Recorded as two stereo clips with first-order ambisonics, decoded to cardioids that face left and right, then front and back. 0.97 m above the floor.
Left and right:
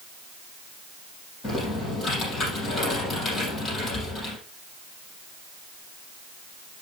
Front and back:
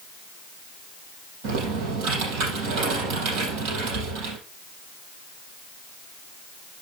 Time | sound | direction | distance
1.4 | typing on a keyboard | 155° left | 5.5 m